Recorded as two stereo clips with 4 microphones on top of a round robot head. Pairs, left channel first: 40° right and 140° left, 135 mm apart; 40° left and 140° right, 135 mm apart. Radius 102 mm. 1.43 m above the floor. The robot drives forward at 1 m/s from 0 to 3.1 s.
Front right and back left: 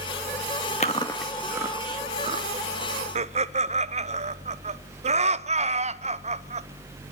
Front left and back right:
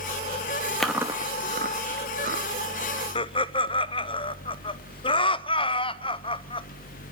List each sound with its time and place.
0.8 s chewing: 45° right, 0.8 m; by 2.5 s 170° right, 1.6 m
3.1 s laughter: 95° left, 0.8 m